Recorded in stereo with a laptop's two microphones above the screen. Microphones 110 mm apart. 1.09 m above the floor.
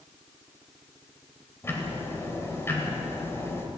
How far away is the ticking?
About 3 m.